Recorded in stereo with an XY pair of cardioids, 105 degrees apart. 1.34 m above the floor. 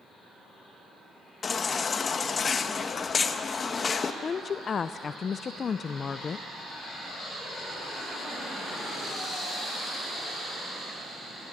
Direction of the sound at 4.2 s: 40° left.